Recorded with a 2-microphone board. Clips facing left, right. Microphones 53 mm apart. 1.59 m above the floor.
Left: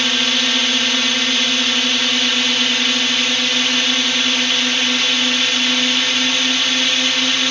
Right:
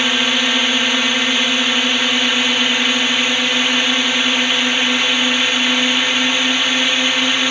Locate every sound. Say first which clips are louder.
0.0 s a drone: right 2 dB; 20° right (ahead or behind)